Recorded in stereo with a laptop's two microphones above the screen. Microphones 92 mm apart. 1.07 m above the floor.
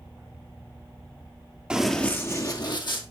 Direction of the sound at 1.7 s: 10° right (ahead or behind).